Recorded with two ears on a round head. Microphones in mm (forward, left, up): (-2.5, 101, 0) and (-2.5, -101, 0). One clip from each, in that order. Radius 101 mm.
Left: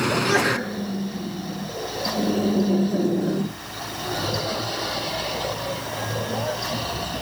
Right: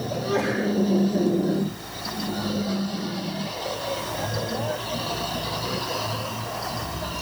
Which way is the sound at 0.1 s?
55° left (ahead or behind).